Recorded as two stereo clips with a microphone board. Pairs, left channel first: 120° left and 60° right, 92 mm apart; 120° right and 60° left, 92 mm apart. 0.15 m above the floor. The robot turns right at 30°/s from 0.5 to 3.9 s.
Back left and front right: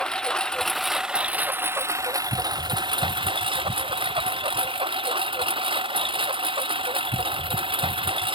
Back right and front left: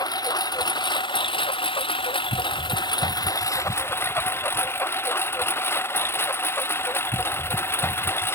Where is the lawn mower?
160° right; by 8.4 s 55° right.